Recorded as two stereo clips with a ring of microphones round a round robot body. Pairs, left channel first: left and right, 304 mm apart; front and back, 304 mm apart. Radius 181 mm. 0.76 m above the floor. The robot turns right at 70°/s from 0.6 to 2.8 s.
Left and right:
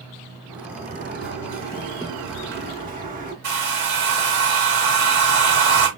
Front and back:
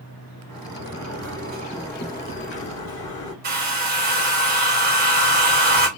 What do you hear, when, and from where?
0.5 s a sliding door: 175° left, 3.5 m; by 3.3 s 30° right, 3.5 m
3.4 s a hair dryer: 125° right, 2 m